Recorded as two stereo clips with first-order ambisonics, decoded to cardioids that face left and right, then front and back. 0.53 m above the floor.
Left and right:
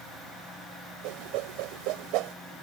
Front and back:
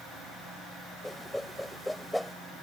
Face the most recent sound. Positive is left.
turn(degrees=-85)